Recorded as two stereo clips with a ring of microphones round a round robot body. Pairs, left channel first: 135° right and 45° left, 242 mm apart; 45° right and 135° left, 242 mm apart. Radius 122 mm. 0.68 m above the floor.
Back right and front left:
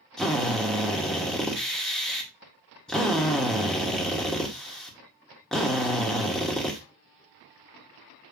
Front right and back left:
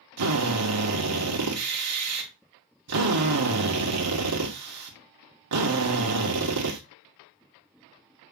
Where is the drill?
140° left, 2 m.